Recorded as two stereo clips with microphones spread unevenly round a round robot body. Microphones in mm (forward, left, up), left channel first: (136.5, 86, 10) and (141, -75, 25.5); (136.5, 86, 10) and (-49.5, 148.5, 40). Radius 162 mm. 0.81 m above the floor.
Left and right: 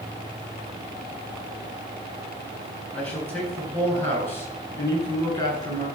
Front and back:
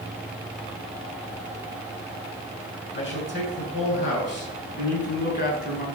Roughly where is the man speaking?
Ahead.